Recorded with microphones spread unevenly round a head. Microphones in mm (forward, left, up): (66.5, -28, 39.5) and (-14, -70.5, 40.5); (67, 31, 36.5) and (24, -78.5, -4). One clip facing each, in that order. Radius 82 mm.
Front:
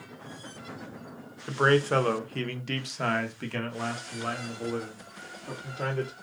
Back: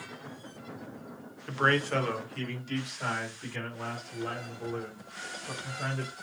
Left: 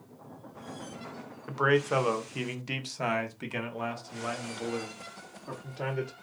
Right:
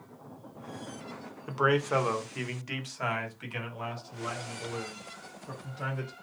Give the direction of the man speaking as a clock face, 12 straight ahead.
1 o'clock.